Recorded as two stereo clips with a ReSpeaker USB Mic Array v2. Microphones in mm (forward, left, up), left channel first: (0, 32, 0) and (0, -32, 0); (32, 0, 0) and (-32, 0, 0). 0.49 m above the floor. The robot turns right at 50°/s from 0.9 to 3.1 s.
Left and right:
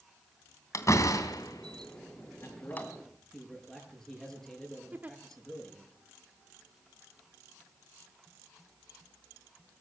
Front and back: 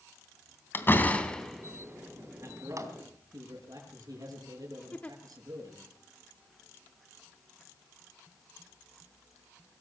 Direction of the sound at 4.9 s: 50° right.